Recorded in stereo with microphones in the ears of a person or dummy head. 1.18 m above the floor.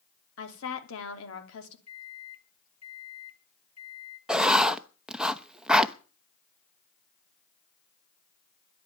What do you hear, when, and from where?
0.4 s a woman speaking: 75° left (ahead or behind), 3 m
1.9 s a microwave: 80° left, 1.3 m
4.3 s writing: 5° right (ahead or behind), 0.8 m